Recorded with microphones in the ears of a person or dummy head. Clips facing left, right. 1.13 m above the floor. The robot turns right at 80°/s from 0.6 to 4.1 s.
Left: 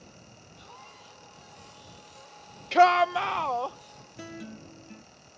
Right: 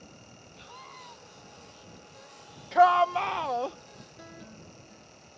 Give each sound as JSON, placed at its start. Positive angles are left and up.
{"t": 0.6, "sound": "a scream", "azimuth_deg": -150}
{"t": 2.7, "sound": "a shout", "azimuth_deg": 130}
{"t": 4.2, "sound": "a guitar", "side_deg": 35}